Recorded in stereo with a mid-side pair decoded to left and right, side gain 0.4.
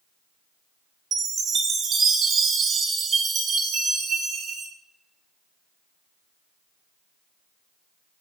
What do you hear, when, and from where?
1.1 s a chime: 65° right, 0.5 m